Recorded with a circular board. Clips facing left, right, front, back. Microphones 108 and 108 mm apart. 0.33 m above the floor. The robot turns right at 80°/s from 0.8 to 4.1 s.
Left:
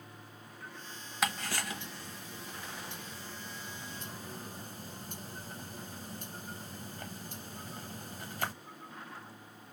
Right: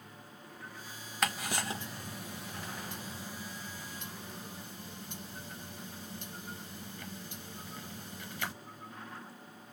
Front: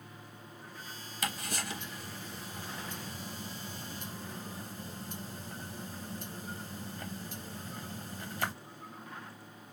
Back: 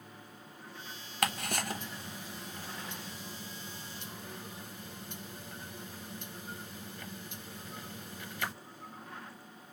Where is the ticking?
175° left, 0.7 m; by 8.5 s 45° left, 0.7 m.